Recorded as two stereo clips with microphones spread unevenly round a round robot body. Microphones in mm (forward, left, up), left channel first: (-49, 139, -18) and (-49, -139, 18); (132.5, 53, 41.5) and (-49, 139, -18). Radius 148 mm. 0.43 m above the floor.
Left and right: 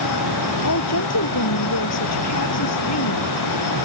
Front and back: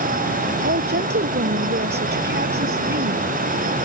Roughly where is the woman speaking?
Behind left.